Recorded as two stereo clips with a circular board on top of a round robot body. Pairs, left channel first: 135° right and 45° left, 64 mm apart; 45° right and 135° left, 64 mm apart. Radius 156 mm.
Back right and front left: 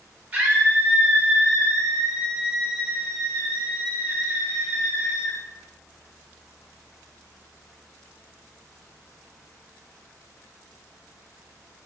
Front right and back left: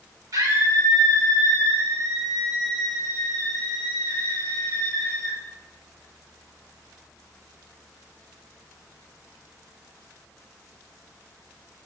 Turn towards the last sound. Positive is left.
turn(degrees=120)